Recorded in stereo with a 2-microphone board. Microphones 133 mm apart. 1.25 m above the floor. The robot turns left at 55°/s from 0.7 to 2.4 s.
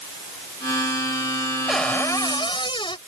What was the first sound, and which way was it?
A cupboard door, straight behind.